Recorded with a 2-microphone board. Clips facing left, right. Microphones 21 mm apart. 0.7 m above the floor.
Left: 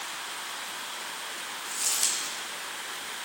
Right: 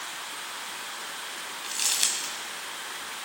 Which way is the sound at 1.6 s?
55° right (ahead or behind).